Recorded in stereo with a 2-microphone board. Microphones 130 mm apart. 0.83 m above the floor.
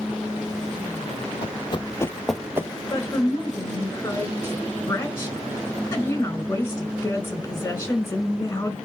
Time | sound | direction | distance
1.4 | running footsteps | 45° left (ahead or behind) | 1.2 m
2.9 | a woman speaking | 20° left (ahead or behind) | 3.5 m